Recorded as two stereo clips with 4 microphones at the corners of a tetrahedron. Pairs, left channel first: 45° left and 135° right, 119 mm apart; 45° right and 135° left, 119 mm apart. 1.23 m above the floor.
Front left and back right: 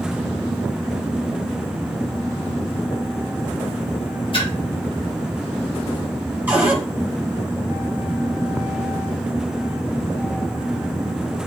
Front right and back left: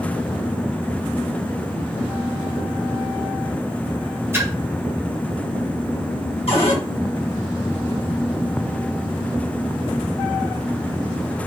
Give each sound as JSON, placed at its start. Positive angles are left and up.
{"t": 4.3, "sound": "a splash", "azimuth_deg": 70, "distance_m": 0.8}
{"t": 6.5, "sound": "a cupboard door", "azimuth_deg": -65, "distance_m": 1.1}